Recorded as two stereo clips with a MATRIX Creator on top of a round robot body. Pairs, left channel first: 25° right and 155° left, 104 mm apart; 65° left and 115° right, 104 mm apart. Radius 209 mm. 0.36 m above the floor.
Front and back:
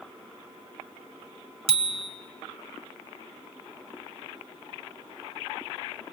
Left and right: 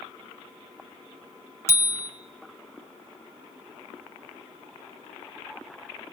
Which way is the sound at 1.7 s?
135° left.